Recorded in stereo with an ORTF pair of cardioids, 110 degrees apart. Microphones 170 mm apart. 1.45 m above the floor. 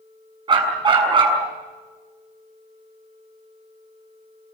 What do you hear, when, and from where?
0.5 s a dog barking: 30° right, 6.5 m